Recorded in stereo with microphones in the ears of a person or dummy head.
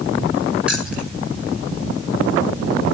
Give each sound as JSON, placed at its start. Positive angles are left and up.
{"t": 0.7, "sound": "keys jangling", "side_deg": -5, "distance_m": 4.5}